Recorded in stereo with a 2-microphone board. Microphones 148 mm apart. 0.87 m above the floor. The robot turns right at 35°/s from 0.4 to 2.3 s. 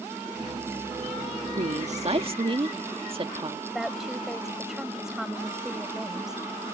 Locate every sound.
1.6 s a woman speaking: 60° right (ahead or behind); by 3.6 s 40° right (ahead or behind)
3.7 s a woman speaking: 5° right (ahead or behind)